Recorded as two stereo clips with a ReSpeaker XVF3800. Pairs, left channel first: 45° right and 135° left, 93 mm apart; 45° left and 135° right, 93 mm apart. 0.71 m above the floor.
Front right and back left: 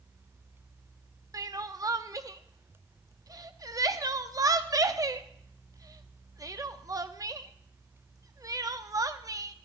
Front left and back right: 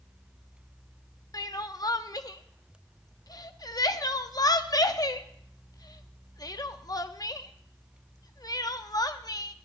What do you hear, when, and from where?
1.3 s crying: 90° left, 0.5 m